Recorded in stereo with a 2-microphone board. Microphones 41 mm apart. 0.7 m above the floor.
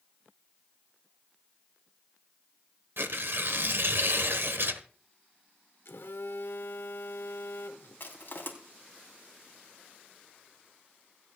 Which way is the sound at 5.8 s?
75° left (ahead or behind).